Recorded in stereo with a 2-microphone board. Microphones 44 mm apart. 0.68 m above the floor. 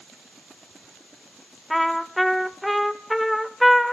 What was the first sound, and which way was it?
A trumpet, centre (ahead or behind).